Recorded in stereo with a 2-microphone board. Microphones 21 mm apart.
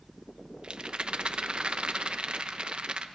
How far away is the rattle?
About 0.8 m.